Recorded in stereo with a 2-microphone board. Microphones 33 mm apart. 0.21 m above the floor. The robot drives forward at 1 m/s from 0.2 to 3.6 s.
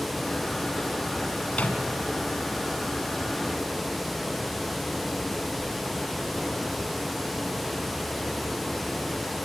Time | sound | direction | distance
1.5 | a microwave | 50° left (ahead or behind) | 2 m